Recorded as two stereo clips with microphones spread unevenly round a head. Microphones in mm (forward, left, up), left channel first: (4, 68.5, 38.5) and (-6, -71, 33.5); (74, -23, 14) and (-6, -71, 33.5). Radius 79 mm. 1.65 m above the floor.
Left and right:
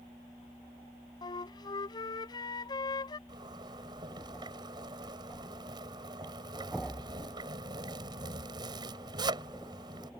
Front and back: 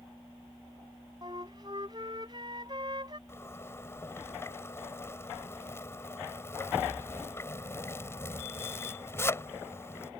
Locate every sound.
1.2 s a flute: 145° left
3.3 s a zipper: 35° right